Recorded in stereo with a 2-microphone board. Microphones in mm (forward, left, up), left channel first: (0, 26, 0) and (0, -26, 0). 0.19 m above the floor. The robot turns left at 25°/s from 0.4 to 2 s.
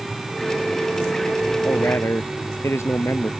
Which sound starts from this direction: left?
A man speaking, at 1.6 s.